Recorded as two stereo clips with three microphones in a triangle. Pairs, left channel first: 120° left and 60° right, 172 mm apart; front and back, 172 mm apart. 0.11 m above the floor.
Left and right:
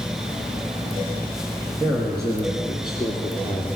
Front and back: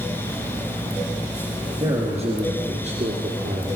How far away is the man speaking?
About 2.5 m.